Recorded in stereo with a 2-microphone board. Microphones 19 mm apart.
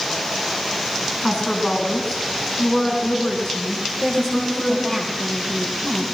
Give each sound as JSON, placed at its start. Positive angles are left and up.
{"t": 1.2, "sound": "a woman speaking", "side_deg": 45, "distance_m": 7.0}
{"t": 4.0, "sound": "a woman speaking", "side_deg": 55, "distance_m": 6.0}